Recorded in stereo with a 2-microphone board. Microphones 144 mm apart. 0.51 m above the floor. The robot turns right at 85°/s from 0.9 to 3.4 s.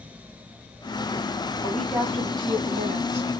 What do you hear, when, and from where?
1.6 s a woman speaking: 155° left, 2.0 m; by 3.3 s 65° right, 2.0 m